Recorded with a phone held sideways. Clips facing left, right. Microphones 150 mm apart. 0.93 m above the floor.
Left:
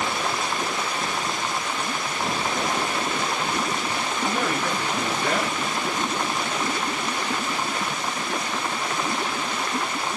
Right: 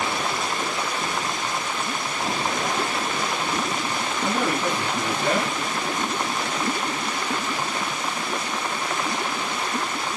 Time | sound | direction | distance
4.2 | a man speaking | 75° right (ahead or behind) | 3 m